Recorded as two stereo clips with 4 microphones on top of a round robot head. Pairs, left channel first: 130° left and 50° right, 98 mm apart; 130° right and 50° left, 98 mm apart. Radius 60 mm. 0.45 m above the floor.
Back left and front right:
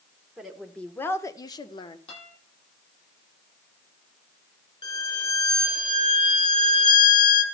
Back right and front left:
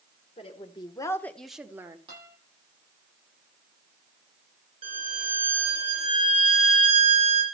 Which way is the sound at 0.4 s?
135° right.